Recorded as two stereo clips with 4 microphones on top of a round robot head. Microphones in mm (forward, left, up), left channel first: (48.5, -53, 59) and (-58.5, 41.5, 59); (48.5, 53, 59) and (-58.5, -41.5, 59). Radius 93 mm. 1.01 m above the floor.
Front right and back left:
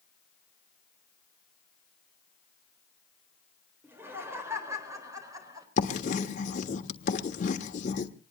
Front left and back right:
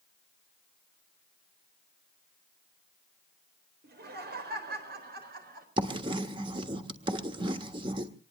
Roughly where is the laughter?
Behind right.